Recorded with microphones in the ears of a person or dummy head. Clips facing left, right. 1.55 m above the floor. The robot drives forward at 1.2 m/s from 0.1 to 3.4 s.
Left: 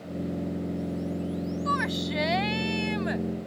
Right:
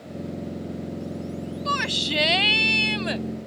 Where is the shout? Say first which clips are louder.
Even; 40° right (ahead or behind); by 3.2 s 50° right (ahead or behind).